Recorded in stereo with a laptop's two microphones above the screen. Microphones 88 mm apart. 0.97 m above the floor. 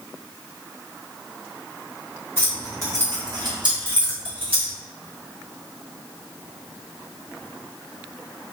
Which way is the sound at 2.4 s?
25° right (ahead or behind).